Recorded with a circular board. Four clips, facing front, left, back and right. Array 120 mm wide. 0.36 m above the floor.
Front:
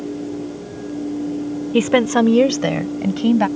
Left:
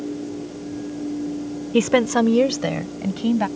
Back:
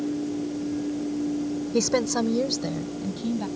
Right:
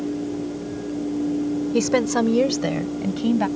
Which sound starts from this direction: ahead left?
A woman speaking, at 1.7 s.